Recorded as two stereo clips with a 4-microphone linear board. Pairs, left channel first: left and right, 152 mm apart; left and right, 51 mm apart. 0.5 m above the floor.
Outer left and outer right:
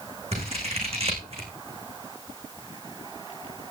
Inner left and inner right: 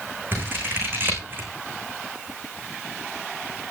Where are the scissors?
40° right (ahead or behind), 7.5 m.